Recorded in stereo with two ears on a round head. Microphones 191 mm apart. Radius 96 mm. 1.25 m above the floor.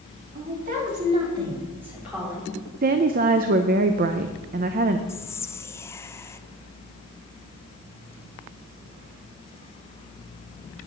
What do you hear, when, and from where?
0.3 s a woman speaking: 50° right (ahead or behind), 3 m; by 2.5 s centre (ahead or behind), 4 m
2.8 s a woman speaking: 40° right (ahead or behind), 0.5 m
5.1 s whispering: 15° left (ahead or behind), 0.5 m